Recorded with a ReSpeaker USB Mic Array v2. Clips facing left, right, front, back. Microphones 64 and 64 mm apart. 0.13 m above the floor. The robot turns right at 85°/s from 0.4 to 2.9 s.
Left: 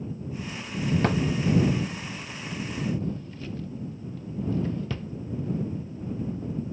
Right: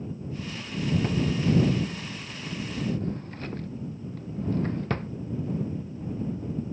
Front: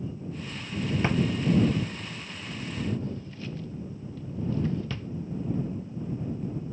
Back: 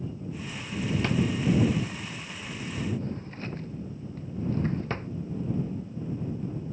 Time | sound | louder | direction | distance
1.0 | a drawer | left 2 dB, front 1 dB | 70° left | ?